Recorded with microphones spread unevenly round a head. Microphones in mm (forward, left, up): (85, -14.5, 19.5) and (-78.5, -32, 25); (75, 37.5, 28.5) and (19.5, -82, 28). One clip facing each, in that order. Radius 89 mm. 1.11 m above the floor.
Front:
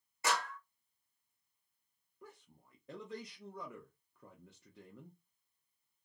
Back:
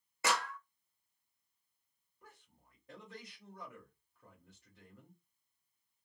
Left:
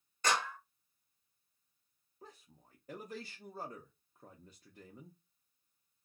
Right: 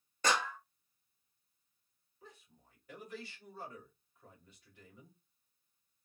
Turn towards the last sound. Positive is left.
turn(degrees=15)